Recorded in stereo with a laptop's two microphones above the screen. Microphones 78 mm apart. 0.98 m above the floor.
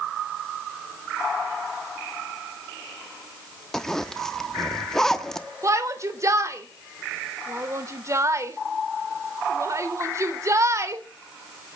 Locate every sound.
3.7 s a zipper: 5° left (ahead or behind), 1.3 m
5.6 s a shout: 40° right (ahead or behind), 3 m